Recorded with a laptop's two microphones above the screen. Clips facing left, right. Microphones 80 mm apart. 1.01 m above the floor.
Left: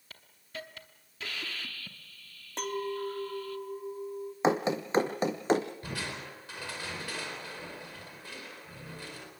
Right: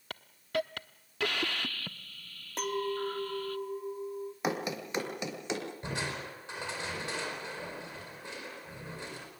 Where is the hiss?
65° right (ahead or behind), 0.8 m.